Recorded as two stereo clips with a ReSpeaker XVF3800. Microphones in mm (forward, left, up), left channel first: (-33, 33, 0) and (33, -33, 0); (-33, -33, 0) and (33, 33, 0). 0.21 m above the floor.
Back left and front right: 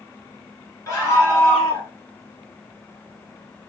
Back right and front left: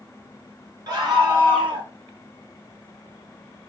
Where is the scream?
80° left, 2.5 m; by 1.9 s 75° left, 3.5 m.